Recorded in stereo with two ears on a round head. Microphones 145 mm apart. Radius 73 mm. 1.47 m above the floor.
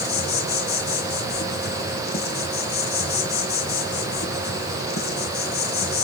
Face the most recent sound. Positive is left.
turn(degrees=70)  # may be behind; listen again after turning